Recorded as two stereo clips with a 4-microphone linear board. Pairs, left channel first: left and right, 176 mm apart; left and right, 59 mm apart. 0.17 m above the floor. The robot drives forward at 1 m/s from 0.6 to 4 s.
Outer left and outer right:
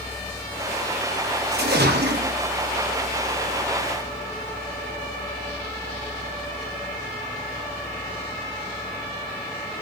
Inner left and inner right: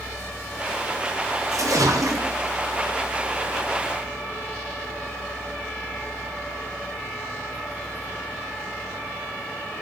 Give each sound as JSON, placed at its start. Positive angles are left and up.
{"t": 1.5, "sound": "a splash", "side_deg": -65, "distance_m": 10.0}